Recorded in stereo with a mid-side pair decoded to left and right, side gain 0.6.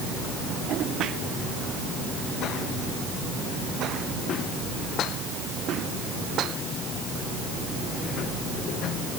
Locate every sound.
Only background noise.